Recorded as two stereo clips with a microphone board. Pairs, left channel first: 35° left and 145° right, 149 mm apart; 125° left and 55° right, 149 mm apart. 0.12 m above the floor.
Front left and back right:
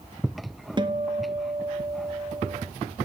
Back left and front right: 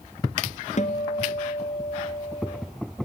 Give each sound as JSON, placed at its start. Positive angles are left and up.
{"t": 0.8, "sound": "a guitar", "azimuth_deg": 160, "distance_m": 1.2}